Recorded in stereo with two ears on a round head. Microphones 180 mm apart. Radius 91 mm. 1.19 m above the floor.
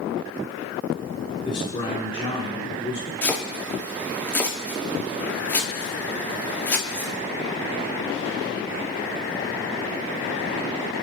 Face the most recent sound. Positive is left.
turn(degrees=10)  # may be behind; listen again after turning